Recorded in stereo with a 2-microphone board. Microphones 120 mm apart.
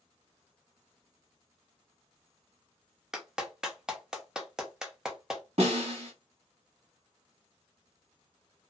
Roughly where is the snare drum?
Right.